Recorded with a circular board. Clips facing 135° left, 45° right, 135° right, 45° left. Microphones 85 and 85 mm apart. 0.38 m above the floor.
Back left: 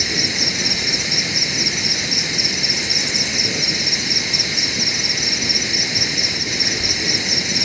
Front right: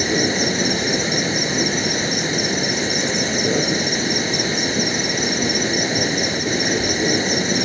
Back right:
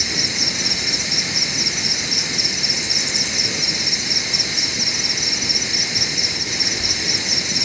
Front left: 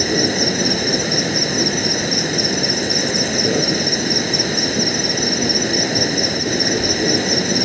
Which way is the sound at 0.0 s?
5° left.